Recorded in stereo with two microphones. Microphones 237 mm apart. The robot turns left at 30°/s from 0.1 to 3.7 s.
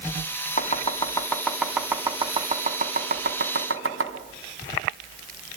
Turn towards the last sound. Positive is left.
turn(degrees=-65)  # may be behind; listen again after turning